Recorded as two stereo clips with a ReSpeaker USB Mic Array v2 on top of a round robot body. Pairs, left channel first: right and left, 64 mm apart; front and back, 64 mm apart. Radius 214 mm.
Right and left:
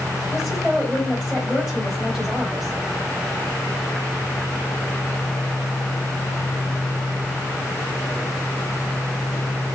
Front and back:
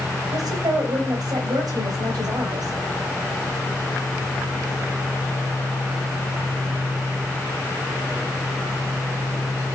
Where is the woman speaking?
170° left, 3.5 m.